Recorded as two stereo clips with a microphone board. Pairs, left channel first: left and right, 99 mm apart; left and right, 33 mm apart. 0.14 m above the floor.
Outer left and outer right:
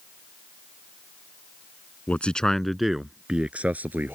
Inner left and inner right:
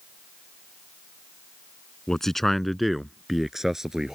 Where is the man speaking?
15° left (ahead or behind); by 4.2 s 20° right (ahead or behind).